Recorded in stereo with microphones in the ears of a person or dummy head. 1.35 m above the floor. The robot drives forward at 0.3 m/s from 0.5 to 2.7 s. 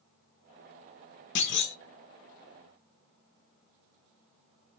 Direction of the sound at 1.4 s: 75° left (ahead or behind).